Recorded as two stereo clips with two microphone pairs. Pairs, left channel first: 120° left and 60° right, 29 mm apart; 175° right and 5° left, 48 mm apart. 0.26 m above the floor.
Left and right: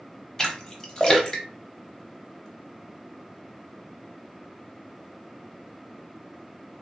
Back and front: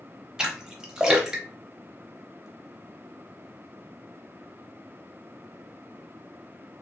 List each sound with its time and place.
0.4 s a splash: 70° left, 0.7 m